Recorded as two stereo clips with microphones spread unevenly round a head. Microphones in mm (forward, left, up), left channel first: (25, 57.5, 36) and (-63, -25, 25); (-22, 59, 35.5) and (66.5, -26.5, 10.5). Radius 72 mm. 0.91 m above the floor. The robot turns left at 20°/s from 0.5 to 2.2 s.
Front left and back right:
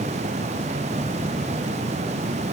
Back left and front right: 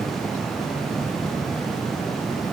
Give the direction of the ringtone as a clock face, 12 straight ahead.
I don't hear a ringtone.